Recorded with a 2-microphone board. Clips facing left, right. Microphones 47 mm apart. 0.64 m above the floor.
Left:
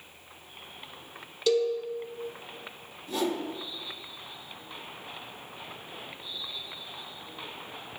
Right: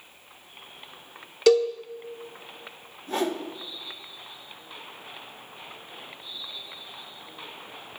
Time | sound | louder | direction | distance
1.5 | a cowbell | right 6 dB | 70° right (ahead or behind) | 0.7 m
3.1 | a whoosh | right 2 dB | 45° right (ahead or behind) | 0.8 m